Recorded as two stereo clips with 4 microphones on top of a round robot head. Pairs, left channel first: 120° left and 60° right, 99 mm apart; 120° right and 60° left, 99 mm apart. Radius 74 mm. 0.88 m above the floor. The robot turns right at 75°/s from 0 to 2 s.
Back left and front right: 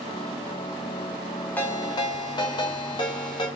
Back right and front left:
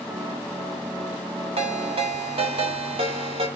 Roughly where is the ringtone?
Ahead left.